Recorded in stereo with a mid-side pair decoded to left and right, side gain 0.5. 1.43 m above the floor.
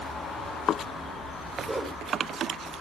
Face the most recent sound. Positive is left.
turn(degrees=-15)